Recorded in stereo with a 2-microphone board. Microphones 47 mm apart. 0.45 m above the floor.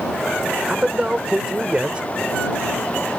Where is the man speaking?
25° right (ahead or behind).